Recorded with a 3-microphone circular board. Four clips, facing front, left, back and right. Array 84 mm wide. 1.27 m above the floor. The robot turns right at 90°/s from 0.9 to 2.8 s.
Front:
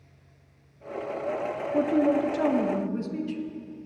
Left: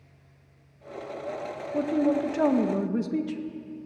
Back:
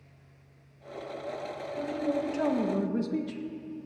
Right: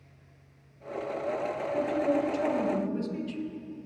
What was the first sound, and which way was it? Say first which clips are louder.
A man speaking: left 4 dB, front 8 dB; 20° left.